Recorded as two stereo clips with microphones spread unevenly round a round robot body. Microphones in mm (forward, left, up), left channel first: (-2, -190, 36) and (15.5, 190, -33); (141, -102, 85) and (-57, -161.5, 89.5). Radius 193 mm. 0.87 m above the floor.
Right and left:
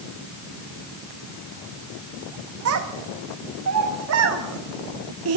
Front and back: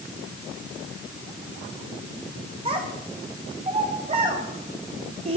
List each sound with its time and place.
2.6 s a child speaking: 135° left, 0.8 m